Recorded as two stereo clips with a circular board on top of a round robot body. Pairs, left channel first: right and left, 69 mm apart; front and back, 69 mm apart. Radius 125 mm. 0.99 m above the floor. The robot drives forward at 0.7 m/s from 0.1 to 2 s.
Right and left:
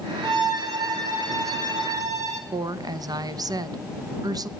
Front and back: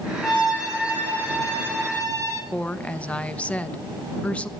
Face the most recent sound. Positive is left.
turn(degrees=70)